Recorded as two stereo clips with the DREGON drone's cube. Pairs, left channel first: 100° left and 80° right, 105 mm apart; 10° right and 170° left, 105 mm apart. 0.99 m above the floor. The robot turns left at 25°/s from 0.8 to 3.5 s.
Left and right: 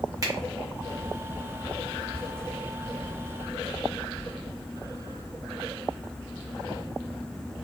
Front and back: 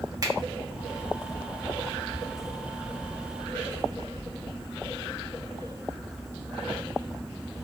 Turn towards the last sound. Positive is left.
turn(degrees=160)